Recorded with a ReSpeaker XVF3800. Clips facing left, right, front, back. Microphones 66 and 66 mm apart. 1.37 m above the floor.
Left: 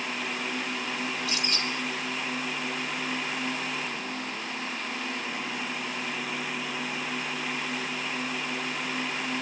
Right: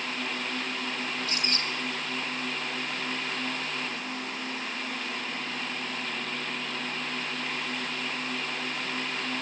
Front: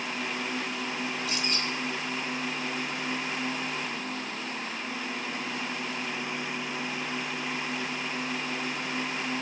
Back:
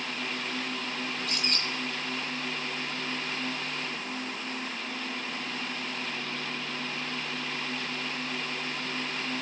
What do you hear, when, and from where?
1.2 s a bird: 140° right, 4.5 m